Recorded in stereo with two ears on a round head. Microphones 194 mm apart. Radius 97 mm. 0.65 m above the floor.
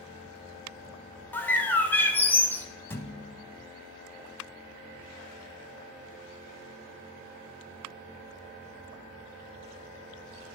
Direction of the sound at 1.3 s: 10° left (ahead or behind).